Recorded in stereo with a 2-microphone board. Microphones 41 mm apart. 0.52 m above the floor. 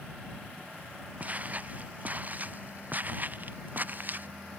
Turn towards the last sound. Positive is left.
turn(degrees=-45)  # may be behind; listen again after turning